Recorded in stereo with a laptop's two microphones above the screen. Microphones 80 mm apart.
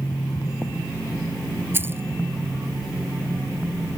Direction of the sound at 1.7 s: 30° right (ahead or behind).